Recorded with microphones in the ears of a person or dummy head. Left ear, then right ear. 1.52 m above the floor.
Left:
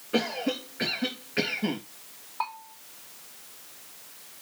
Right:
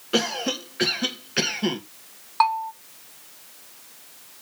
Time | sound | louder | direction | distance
0.1 | a cough | right 4 dB | 90° right | 2.5 m
2.4 | a bell | right 13 dB | 60° right (ahead or behind) | 1.0 m